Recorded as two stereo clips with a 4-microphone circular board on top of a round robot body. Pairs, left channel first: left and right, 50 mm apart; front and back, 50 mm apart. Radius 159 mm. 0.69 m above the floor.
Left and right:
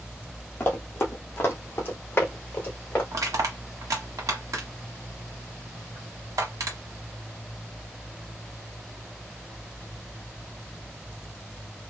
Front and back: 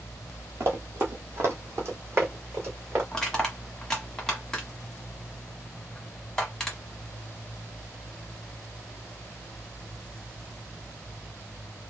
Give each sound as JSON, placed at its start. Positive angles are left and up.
{"t": 0.6, "sound": "running footsteps", "azimuth_deg": 145, "distance_m": 1.1}
{"t": 3.1, "sound": "crushing", "azimuth_deg": -80, "distance_m": 1.1}